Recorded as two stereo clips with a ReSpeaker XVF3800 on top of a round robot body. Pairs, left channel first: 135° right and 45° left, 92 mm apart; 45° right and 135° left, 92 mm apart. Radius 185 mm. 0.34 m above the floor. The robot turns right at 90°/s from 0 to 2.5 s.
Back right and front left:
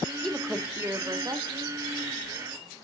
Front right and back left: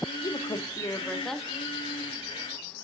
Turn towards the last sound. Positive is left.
turn(degrees=145)